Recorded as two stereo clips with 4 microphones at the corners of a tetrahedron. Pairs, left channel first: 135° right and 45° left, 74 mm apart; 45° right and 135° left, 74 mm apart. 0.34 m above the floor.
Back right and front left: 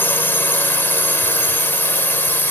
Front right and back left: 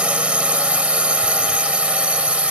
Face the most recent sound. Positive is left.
turn(degrees=-165)